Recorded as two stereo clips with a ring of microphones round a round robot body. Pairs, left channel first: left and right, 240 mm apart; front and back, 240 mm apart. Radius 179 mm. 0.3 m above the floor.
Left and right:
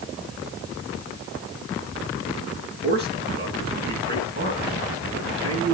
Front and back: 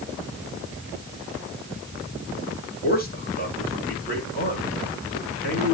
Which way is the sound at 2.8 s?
45° right.